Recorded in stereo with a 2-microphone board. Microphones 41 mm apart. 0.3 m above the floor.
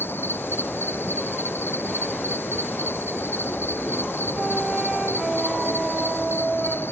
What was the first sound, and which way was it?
An insect, 70° left (ahead or behind).